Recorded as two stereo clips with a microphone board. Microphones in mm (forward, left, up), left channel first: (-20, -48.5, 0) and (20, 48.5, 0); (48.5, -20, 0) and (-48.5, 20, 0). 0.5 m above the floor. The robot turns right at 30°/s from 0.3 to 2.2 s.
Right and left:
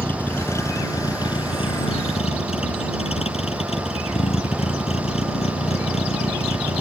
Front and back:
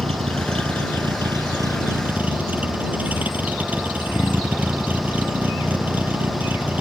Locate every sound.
0.0 s a vehicle: 175° left; by 6.8 s 130° right